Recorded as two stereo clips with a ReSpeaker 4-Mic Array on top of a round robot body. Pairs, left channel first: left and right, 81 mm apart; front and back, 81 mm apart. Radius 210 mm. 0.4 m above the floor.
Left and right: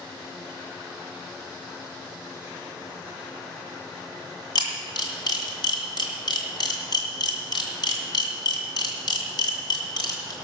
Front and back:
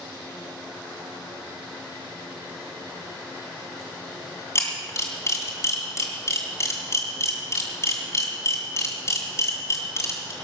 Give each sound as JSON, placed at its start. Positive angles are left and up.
{"t": 4.5, "sound": "a camera shutter", "azimuth_deg": 55, "distance_m": 2.5}